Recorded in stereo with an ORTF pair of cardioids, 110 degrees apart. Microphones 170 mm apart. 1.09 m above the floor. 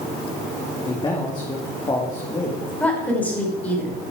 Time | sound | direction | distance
0.8 | a man speaking | 25° left | 2.5 m
2.8 | a woman speaking | 10° left | 5 m